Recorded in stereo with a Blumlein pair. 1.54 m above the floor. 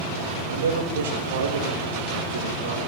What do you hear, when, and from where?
0.5 s a man speaking: 65° right, 5 m